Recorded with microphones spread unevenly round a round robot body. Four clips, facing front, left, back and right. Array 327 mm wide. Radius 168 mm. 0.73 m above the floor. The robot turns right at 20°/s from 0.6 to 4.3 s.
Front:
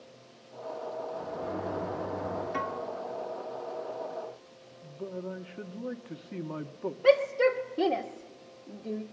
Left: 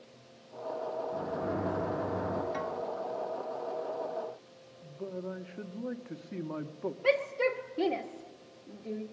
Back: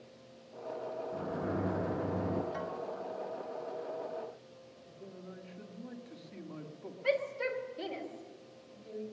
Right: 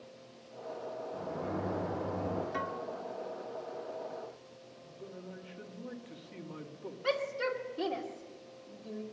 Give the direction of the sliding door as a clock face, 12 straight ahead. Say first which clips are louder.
Left 1 dB, front 1 dB; 8 o'clock.